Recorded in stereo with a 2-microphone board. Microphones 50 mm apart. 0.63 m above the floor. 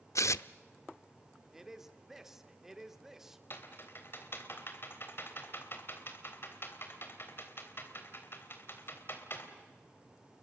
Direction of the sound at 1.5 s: 5° right (ahead or behind).